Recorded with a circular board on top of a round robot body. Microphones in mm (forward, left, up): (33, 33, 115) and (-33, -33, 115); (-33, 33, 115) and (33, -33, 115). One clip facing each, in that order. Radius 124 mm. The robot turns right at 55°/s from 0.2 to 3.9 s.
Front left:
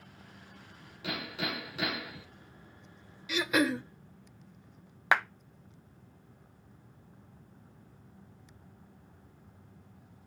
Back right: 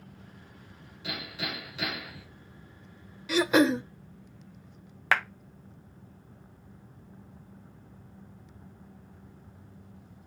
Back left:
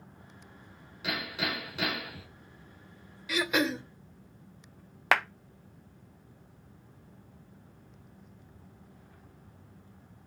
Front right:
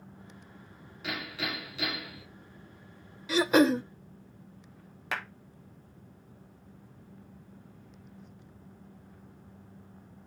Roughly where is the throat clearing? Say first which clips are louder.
Back right 6 dB, front right 6 dB; right.